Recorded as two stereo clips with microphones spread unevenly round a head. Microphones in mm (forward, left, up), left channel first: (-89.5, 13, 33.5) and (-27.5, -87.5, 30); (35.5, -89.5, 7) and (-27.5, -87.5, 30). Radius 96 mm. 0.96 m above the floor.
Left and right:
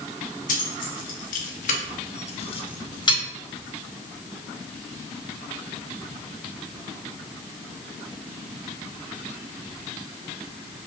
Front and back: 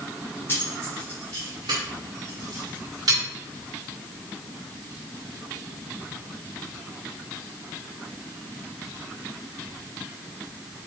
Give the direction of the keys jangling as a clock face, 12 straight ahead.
9 o'clock.